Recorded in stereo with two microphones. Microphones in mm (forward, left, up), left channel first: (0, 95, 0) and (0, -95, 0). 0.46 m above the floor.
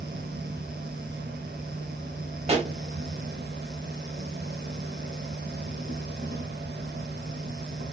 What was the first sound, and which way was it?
An insect, 75° right (ahead or behind).